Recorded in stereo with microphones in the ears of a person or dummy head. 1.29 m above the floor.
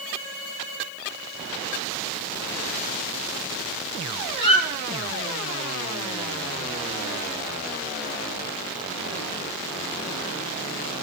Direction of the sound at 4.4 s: 30° left (ahead or behind).